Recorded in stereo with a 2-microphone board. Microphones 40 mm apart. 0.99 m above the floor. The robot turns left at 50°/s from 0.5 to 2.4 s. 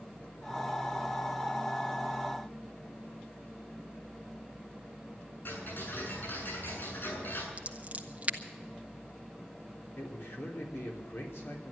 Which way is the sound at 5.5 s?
55° left (ahead or behind).